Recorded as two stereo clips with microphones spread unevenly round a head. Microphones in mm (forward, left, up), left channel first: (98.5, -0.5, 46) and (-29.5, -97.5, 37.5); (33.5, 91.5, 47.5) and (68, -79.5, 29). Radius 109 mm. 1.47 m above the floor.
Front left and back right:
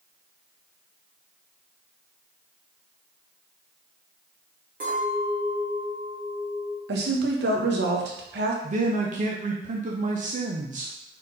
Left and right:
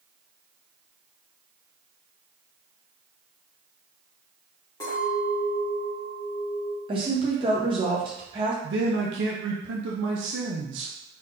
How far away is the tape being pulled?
I don't hear tape being pulled.